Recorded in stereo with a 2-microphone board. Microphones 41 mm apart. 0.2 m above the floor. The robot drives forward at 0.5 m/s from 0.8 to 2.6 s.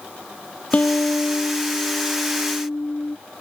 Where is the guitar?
35° left (ahead or behind); by 3.2 s 50° left (ahead or behind).